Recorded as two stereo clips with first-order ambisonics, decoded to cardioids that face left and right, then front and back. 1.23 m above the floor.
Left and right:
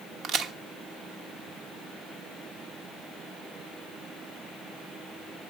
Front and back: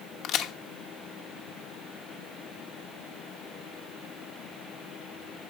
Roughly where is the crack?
Ahead right.